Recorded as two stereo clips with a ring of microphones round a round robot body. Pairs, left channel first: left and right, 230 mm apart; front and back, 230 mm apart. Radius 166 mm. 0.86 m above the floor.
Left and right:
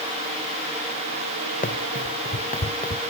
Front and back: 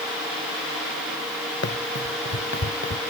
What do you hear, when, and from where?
1.6 s running footsteps: 35° left